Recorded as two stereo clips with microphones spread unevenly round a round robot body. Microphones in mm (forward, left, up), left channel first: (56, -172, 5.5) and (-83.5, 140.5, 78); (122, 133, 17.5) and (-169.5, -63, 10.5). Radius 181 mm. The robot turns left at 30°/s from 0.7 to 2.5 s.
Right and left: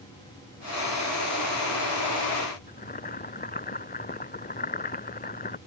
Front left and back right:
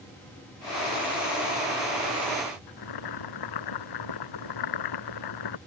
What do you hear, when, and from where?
2.7 s boiling: straight ahead